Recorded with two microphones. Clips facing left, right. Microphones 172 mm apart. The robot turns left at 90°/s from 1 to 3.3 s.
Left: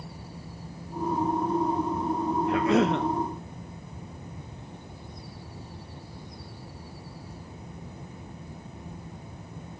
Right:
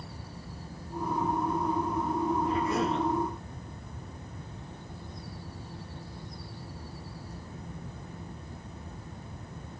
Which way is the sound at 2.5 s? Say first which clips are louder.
Left 6 dB; 110° left.